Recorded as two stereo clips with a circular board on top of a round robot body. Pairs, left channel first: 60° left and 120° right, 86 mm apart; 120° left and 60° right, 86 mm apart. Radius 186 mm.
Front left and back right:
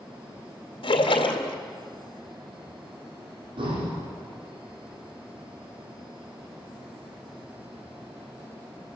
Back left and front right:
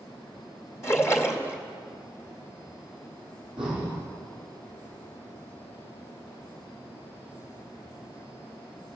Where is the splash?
60° left, 2.5 m.